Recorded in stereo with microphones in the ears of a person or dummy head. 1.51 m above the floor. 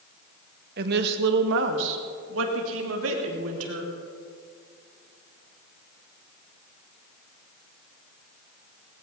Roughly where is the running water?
I don't hear running water.